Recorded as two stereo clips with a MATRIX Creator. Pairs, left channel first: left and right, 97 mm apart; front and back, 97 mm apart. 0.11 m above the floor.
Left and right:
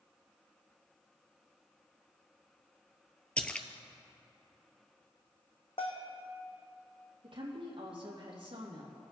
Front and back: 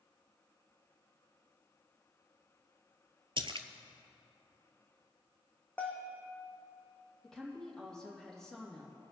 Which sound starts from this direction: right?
A woman speaking, at 7.2 s.